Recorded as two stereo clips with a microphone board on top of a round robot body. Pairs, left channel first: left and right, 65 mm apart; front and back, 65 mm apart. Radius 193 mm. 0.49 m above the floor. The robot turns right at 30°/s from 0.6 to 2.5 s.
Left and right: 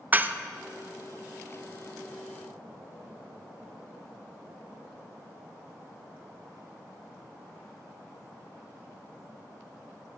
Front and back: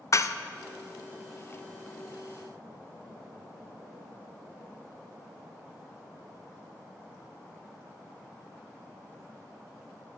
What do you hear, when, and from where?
0.1 s dishes clattering: 30° right, 0.5 m